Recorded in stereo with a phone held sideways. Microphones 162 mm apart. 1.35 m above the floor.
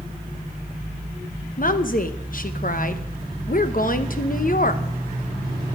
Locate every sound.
1.6 s a woman speaking: 60° left (ahead or behind), 0.9 m